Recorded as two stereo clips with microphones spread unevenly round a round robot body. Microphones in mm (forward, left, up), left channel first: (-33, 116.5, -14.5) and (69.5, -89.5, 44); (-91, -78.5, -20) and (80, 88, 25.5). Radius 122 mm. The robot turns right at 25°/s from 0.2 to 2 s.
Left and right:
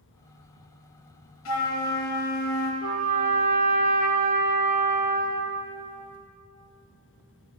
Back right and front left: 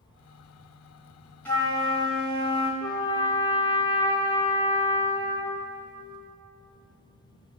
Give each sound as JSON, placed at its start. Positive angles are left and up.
{"t": 1.4, "sound": "a flute", "azimuth_deg": 140, "distance_m": 2.5}
{"t": 2.8, "sound": "a trumpet", "azimuth_deg": -60, "distance_m": 0.9}